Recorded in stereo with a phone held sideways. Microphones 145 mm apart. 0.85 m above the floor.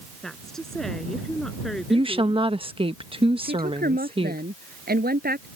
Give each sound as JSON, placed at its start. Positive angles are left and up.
{"t": 0.2, "sound": "a woman speaking", "side_deg": 5}
{"t": 1.9, "sound": "a woman speaking", "side_deg": -35}
{"t": 3.4, "sound": "a woman speaking", "side_deg": -85}